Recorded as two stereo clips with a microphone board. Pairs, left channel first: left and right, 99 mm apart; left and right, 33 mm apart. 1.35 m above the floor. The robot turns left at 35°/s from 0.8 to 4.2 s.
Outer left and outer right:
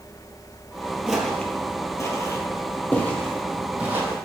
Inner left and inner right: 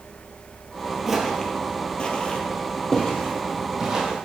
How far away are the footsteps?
About 1.6 m.